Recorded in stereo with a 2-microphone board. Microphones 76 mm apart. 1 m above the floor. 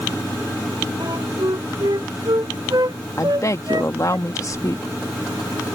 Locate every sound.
1.0 s a flute: 70° right (ahead or behind)
3.2 s a woman speaking: 45° left (ahead or behind)